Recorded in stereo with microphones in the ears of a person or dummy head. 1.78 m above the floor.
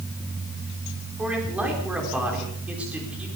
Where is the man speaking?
10° right (ahead or behind), 5 m.